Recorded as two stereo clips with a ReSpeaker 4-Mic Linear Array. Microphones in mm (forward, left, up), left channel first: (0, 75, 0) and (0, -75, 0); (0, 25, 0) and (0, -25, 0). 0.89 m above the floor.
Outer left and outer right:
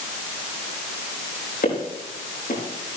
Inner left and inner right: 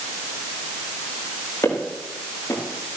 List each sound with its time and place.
1.6 s footsteps: 80° left, 8.5 m